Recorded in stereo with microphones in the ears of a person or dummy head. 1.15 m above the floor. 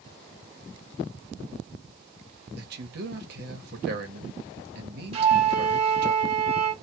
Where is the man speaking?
60° right (ahead or behind), 1.0 m.